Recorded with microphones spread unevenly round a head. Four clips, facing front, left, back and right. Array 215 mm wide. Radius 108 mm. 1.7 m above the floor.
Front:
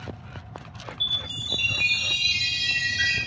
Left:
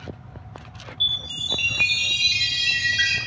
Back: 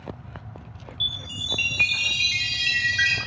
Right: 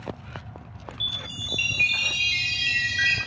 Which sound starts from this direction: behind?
A chime, at 1.0 s.